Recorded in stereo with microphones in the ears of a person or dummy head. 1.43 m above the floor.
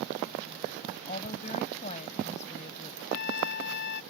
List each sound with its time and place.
1.1 s a woman speaking: 35° left (ahead or behind)
3.1 s a trumpet: 60° left (ahead or behind)